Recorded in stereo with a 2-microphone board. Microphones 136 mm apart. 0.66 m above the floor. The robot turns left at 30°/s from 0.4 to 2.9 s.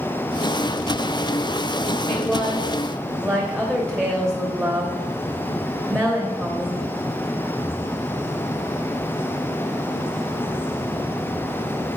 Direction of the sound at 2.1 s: 25° left (ahead or behind).